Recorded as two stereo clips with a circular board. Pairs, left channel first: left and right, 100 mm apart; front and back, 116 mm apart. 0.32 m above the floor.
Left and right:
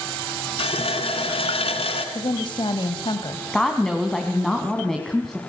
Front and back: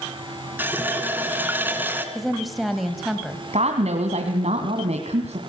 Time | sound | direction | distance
0.6 | a running tap | 105° left | 2 m
2.1 | a woman speaking | 90° left | 1.9 m
3.5 | a woman speaking | 175° left | 2 m